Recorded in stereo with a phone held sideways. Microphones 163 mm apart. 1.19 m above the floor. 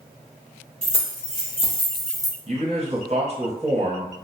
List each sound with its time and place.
0.8 s keys jangling: 45° left (ahead or behind), 1.4 m; by 2.4 s 15° left (ahead or behind), 0.5 m
2.5 s a man speaking: 40° right (ahead or behind), 0.7 m